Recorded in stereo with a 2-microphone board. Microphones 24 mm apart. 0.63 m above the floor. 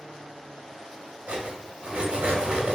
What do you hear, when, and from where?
1.3 s cutlery clinking: 50° right (ahead or behind), 0.7 m